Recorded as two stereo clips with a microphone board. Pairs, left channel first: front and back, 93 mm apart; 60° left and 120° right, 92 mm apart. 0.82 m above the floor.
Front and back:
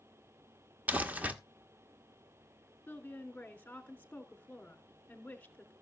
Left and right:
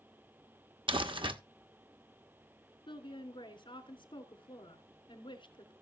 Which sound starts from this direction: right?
Crumpling, at 0.9 s.